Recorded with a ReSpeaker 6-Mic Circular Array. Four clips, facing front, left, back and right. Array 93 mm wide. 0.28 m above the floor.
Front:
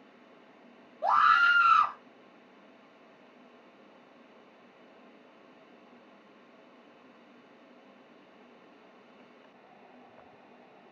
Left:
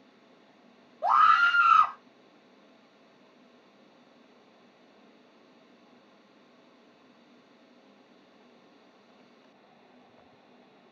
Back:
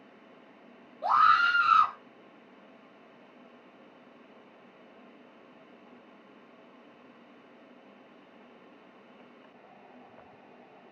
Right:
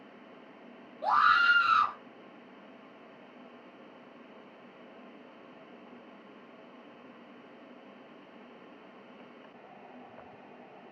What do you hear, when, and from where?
1.0 s a scream: 60° left, 1.0 m